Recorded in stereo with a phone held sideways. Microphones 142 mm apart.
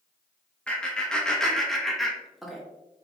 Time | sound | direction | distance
0.7 | laughter | 10° left (ahead or behind) | 0.9 m